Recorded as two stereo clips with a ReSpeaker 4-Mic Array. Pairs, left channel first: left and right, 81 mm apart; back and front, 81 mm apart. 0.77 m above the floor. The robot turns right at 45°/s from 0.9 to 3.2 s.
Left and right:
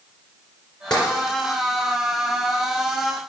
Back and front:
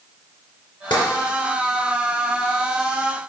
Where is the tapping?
170° left, 2.5 m; by 1.0 s 175° left, 2.5 m.